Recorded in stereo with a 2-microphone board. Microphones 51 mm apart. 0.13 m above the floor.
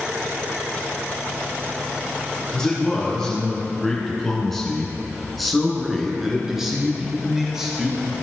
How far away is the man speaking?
About 2.0 m.